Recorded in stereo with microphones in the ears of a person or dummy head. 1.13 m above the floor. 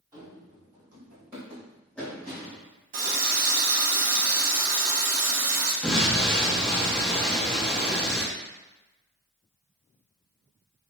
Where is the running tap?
55° right (ahead or behind), 0.7 m.